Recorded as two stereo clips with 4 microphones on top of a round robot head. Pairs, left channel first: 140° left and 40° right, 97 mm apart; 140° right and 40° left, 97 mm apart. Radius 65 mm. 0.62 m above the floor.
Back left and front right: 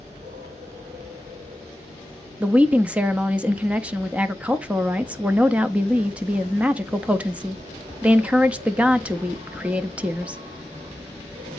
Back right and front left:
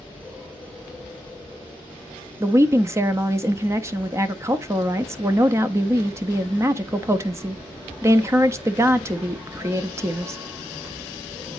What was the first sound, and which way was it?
An insect, 35° right.